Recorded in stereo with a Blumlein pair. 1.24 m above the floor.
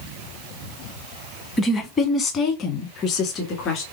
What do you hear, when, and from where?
1.6 s a woman speaking: 15° left, 0.9 m; by 3.8 s 35° left, 2 m